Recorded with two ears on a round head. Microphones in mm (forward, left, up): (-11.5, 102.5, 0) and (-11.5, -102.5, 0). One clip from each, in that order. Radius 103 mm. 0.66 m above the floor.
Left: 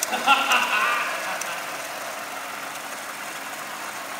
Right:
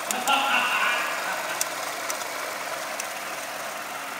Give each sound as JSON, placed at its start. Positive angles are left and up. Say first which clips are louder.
{"t": 0.1, "sound": "laughter", "louder": "left 3 dB", "side_deg": 45, "distance_m": 1.8}